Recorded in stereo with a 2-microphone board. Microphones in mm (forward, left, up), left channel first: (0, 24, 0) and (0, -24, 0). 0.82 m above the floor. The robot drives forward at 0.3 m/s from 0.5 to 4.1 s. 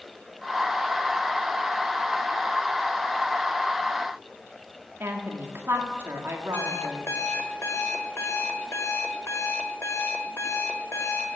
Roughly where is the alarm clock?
Left.